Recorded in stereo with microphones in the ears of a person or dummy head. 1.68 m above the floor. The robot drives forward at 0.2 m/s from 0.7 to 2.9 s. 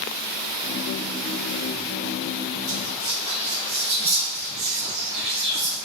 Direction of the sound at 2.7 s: 20° right (ahead or behind).